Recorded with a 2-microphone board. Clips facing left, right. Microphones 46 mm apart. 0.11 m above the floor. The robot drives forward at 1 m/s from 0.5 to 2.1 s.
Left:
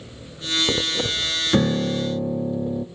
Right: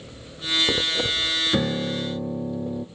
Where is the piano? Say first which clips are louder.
Left 4 dB; 10° left (ahead or behind), 0.6 m; by 2.9 s 5° left (ahead or behind), 1.0 m.